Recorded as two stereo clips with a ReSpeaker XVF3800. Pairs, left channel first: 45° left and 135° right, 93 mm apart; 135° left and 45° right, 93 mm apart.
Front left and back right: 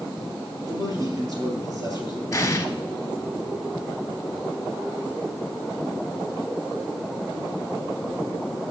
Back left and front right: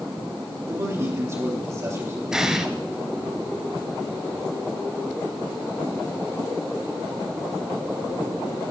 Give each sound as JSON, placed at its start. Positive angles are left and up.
{"t": 0.7, "sound": "a man speaking", "azimuth_deg": -95, "distance_m": 2.5}
{"t": 2.3, "sound": "an explosion", "azimuth_deg": 35, "distance_m": 0.9}